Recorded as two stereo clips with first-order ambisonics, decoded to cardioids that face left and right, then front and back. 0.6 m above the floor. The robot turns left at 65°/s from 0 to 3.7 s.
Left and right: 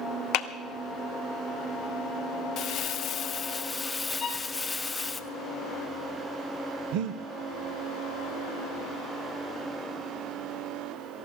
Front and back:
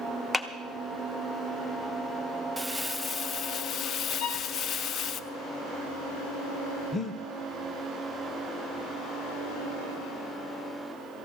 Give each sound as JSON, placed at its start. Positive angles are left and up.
{"t": 0.3, "sound": "a clap", "azimuth_deg": 85, "distance_m": 0.8}
{"t": 2.6, "sound": "crumpling", "azimuth_deg": 95, "distance_m": 0.6}
{"t": 4.2, "sound": "a violin", "azimuth_deg": 20, "distance_m": 1.3}
{"t": 6.9, "sound": "breathing", "azimuth_deg": -70, "distance_m": 0.6}